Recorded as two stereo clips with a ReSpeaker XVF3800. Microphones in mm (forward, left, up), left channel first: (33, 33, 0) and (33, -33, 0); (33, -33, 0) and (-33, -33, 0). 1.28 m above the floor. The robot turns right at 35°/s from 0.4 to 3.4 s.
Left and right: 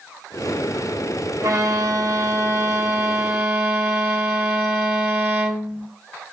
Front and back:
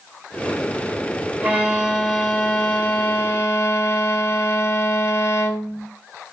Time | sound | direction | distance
1.4 | a violin | 110° right | 1.5 m